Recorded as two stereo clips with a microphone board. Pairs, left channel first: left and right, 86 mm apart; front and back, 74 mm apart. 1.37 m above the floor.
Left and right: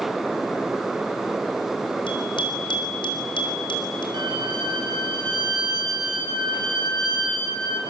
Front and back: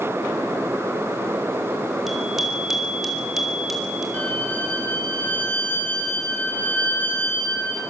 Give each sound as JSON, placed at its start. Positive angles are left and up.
{"t": 2.1, "sound": "a bicycle bell", "azimuth_deg": 95, "distance_m": 4.5}
{"t": 4.1, "sound": "a violin", "azimuth_deg": -65, "distance_m": 7.0}